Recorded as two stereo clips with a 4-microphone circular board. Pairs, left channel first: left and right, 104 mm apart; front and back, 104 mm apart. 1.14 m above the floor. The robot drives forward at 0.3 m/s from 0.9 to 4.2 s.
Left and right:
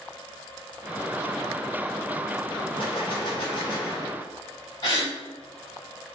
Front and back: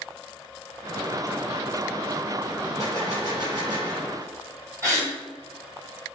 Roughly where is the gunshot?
Behind left.